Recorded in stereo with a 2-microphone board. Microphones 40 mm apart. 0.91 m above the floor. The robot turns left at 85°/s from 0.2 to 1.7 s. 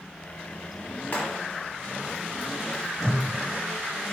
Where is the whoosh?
20° left (ahead or behind), 1.4 m.